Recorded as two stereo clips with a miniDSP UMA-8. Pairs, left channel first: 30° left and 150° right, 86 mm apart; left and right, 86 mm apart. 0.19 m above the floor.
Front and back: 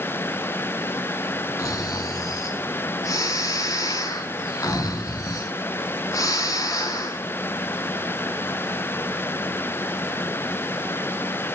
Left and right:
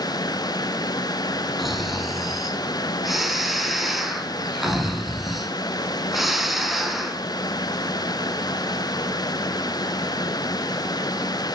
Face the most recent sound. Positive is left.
turn(degrees=0)